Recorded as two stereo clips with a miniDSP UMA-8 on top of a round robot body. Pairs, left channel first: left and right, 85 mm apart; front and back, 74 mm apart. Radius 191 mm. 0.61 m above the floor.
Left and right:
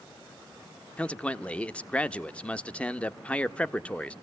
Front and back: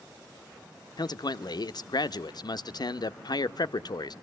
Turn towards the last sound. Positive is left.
turn(degrees=15)